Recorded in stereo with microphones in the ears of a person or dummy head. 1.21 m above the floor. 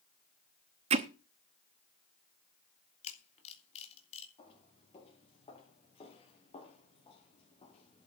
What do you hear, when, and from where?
0.9 s hammering: 30° right (ahead or behind), 0.9 m
3.0 s a camera shutter: 35° left (ahead or behind), 3 m
4.4 s footsteps: 25° left (ahead or behind), 5.5 m; by 8.1 s 30° left (ahead or behind), 3.5 m